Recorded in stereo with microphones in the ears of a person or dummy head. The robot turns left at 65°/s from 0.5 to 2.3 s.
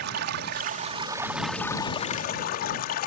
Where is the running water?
120° right; by 3.1 s 125° left.